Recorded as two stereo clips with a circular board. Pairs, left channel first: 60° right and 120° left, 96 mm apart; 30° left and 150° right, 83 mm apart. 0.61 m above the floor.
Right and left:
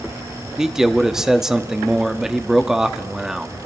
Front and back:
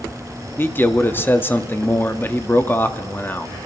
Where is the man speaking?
40° left, 0.6 m.